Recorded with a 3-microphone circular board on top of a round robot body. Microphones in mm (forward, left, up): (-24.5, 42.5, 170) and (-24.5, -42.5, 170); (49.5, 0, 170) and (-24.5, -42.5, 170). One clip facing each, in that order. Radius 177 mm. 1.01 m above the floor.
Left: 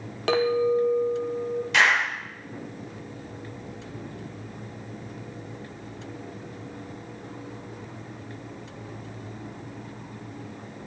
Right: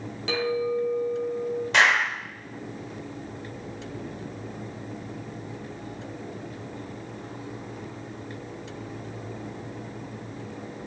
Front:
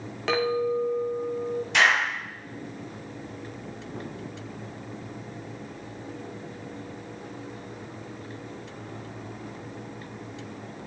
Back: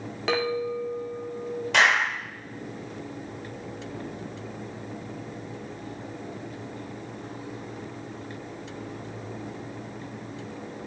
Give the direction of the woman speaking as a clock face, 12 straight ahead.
I don't hear a woman speaking.